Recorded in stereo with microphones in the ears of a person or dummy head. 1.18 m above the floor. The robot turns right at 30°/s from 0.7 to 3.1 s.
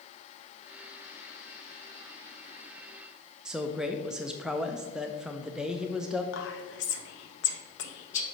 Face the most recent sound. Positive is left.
turn(degrees=70)  # may be behind; listen again after turning